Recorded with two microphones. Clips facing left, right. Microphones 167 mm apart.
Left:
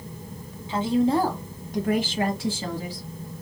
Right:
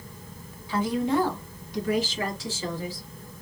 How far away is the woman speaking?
About 1.2 m.